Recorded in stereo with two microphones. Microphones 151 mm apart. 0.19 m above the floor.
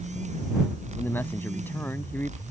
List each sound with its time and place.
1.0 s a man speaking: 15° left (ahead or behind)